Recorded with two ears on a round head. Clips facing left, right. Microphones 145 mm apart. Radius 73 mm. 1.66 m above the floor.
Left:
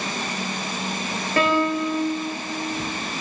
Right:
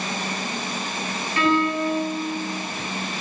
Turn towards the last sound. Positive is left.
turn(degrees=45)  # may be behind; listen again after turning